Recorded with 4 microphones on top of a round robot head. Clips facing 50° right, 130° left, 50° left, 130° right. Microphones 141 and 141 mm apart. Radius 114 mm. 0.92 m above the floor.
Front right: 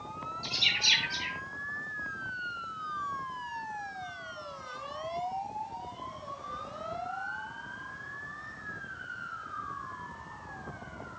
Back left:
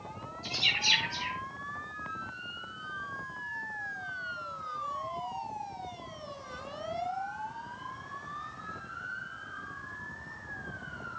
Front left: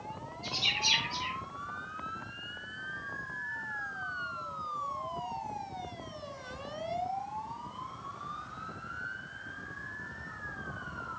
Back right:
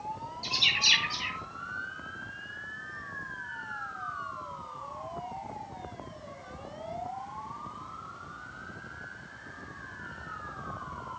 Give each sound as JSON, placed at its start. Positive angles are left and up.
{"t": 0.4, "sound": "a bird", "azimuth_deg": -110, "distance_m": 3.0}